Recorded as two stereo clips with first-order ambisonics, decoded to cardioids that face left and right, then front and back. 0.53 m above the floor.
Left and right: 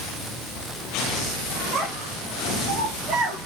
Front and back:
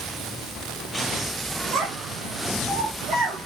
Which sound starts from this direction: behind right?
A child speaking, at 1.7 s.